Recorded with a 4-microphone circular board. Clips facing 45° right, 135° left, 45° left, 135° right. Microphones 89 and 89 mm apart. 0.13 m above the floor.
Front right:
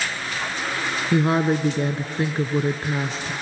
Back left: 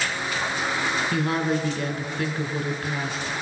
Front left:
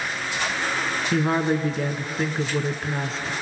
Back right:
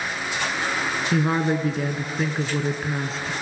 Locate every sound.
1.1 s a woman speaking: 45° right, 1.2 m